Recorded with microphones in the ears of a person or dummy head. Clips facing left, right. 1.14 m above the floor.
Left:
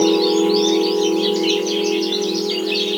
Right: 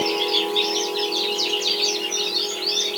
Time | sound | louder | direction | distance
0.0 | a machine running | left 10 dB | 50° left (ahead or behind) | ?